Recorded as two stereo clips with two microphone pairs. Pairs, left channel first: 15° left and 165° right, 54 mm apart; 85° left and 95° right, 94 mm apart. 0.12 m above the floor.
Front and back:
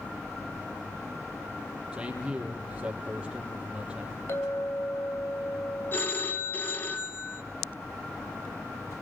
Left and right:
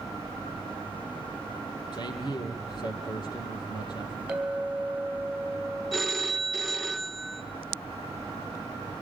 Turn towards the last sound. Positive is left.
turn(degrees=0)